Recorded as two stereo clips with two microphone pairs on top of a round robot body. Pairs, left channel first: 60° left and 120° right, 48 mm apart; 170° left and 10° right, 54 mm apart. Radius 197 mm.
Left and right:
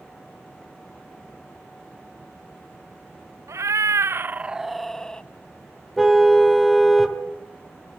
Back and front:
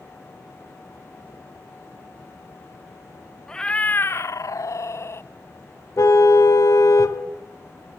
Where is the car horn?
150° left, 2.5 m.